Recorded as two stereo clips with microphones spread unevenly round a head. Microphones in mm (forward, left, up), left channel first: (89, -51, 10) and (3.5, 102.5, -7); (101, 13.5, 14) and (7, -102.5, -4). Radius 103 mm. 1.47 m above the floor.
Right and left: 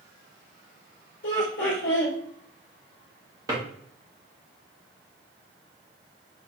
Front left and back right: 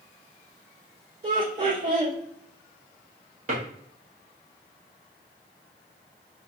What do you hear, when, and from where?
1.2 s laughter: 95° right, 1.2 m
3.5 s a drawer: 170° right, 1.1 m